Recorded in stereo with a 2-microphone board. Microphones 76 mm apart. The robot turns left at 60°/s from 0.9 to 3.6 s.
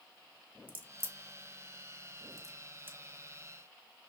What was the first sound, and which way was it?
A crack, 20° right (ahead or behind).